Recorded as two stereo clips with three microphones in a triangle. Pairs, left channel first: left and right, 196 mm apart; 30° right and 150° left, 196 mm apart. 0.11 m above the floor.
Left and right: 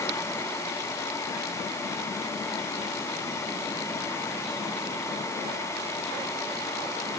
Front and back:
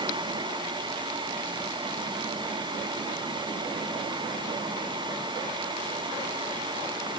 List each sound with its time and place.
Only background noise.